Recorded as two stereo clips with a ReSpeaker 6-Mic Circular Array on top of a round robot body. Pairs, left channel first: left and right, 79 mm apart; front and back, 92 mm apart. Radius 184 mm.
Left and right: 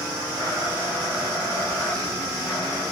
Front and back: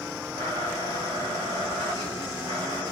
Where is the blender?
150° left, 9 m.